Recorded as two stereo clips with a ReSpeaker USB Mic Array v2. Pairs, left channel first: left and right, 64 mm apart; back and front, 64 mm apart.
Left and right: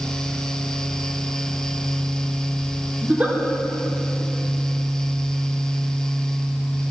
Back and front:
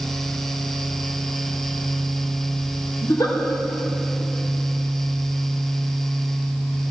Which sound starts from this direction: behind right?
A giggle, at 3.0 s.